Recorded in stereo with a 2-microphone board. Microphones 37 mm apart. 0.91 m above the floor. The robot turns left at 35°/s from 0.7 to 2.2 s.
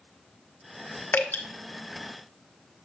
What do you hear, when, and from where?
1.1 s dripping: 75° left (ahead or behind), 1.2 m; by 1.4 s 80° left, 1.2 m